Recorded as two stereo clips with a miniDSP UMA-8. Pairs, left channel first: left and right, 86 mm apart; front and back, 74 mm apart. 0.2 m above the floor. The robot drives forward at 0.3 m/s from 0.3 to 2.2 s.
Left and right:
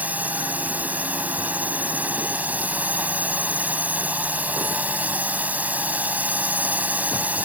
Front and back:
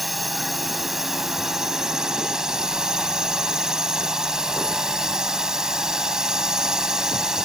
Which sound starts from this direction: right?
A drone, at 0.0 s.